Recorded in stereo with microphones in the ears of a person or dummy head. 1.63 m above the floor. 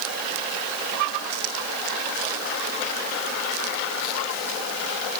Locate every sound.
Only background noise.